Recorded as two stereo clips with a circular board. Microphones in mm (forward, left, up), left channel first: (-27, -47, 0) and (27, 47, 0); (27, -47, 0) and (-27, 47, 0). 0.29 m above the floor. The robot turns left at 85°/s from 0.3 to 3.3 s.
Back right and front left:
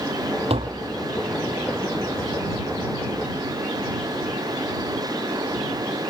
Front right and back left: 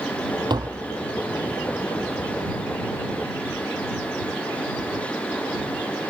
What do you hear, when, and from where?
0.5 s tapping: 75° left; by 0.9 s 45° left